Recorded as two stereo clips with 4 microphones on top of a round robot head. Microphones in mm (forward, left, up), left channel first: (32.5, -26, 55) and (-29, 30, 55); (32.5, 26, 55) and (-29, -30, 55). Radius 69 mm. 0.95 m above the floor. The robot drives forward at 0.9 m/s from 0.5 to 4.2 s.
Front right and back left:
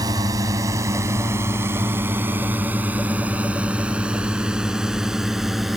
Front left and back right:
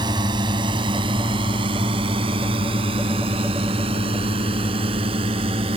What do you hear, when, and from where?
0.0 s a drone: 175° right; by 5.8 s 135° right